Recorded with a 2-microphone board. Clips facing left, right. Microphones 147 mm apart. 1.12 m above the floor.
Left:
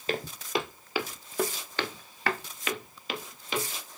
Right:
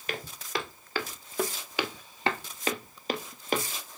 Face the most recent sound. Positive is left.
turn(degrees=-50)  # may be behind; listen again after turning